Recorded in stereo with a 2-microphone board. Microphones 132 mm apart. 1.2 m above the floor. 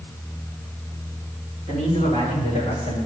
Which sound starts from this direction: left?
A man speaking, at 1.7 s.